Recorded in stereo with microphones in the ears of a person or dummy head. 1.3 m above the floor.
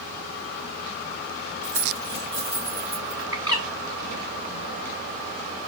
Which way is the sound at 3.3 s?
25° right (ahead or behind).